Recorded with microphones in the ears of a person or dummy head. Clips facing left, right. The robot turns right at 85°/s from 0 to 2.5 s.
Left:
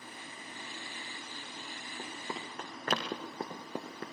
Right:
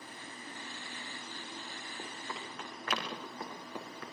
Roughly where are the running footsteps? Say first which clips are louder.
Left 3 dB; centre.